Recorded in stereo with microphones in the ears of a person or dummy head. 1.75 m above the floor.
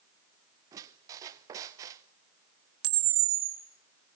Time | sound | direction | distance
0.7 | a squeak | 20° right (ahead or behind) | 0.9 m
2.8 | a camera shutter | 75° right (ahead or behind) | 4 m